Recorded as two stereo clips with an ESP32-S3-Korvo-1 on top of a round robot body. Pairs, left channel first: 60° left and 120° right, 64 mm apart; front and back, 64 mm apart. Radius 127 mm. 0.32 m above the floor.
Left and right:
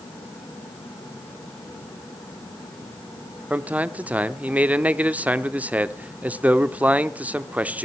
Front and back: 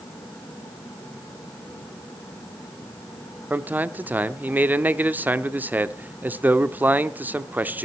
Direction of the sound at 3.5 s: 160° right.